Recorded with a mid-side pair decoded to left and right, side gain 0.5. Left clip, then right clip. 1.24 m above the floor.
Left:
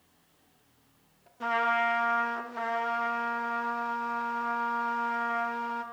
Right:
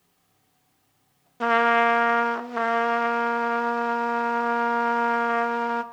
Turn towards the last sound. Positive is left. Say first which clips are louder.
# right 7 dB
turn(degrees=-60)